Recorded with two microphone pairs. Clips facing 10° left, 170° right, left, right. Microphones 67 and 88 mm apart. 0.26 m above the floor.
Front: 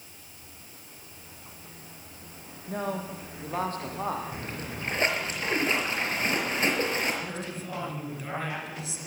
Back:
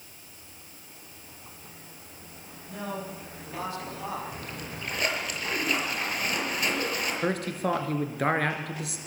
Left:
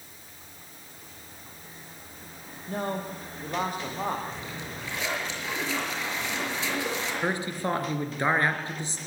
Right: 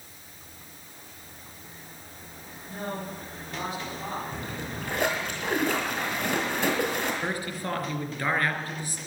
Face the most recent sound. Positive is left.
turn(degrees=160)